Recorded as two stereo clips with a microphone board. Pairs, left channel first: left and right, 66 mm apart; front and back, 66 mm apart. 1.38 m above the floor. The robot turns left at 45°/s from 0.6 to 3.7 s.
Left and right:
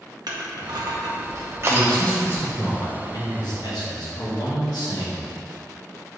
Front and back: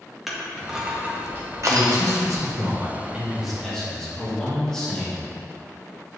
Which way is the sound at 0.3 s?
95° right.